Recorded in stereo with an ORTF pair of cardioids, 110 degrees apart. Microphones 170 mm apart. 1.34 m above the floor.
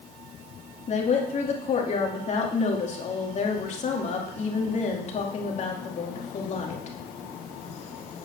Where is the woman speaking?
40° left, 2.5 m.